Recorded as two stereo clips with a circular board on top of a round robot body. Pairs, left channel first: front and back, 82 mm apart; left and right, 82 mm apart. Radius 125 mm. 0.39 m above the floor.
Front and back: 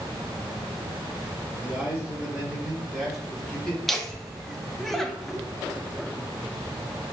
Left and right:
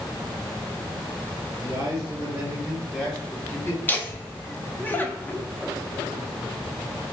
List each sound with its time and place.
1.6 s a man speaking: 110° right, 1.7 m; by 3.8 s 70° left, 1.4 m
3.9 s laughter: 80° left, 0.8 m